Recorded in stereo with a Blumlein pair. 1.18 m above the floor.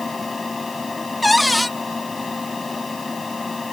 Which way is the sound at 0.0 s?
10° left.